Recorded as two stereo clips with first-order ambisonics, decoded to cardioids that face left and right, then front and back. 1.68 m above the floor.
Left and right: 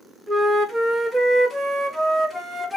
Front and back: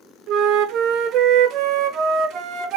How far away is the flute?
About 0.5 m.